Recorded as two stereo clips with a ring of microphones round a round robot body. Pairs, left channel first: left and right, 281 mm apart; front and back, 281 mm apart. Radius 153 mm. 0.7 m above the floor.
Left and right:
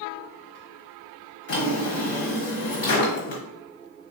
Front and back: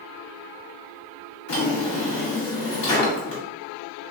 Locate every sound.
1.5 s a drawer: 50° left, 1.4 m